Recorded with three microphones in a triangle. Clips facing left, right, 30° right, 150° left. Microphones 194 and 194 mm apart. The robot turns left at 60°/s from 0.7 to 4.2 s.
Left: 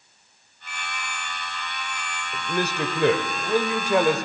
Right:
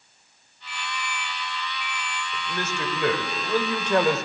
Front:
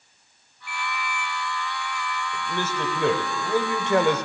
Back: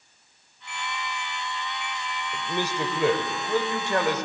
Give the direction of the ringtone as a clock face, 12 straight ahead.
1 o'clock.